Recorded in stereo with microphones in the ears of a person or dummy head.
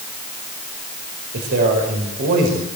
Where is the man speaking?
55° right (ahead or behind), 5 m.